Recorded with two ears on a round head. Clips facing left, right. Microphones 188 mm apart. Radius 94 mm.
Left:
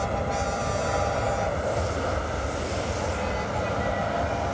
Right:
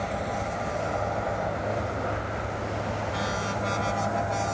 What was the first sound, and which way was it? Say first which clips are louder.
An aircraft: left 3 dB; 40° left (ahead or behind).